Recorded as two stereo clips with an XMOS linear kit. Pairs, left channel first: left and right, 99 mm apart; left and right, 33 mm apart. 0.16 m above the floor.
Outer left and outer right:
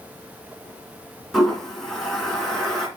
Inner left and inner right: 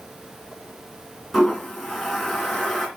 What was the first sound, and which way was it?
A toilet flushing, 5° left (ahead or behind).